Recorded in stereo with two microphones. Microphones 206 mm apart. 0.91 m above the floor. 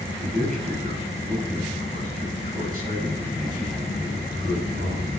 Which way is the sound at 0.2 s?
45° right (ahead or behind).